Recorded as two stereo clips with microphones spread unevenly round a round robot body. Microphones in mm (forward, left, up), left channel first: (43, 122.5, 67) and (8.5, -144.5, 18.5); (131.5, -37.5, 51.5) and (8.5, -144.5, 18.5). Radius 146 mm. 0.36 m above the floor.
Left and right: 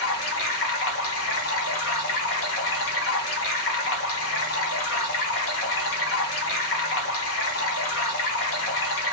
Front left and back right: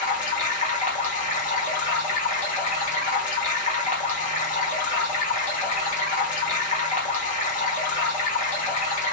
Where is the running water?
70° left, 1.0 m.